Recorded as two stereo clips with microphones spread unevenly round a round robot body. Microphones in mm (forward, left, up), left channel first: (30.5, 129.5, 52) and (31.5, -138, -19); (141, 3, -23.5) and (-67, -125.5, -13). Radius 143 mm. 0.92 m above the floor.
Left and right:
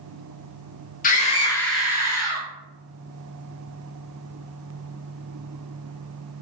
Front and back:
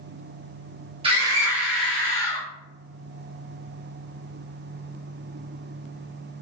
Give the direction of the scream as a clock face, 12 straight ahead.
7 o'clock.